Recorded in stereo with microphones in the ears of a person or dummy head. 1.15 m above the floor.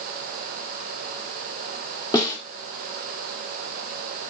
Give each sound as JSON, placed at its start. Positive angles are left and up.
{"t": 2.1, "sound": "a snare drum", "side_deg": 20, "distance_m": 1.0}